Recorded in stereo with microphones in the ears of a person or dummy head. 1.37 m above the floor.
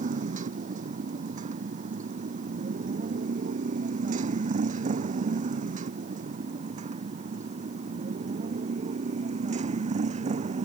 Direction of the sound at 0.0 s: 45° right (ahead or behind).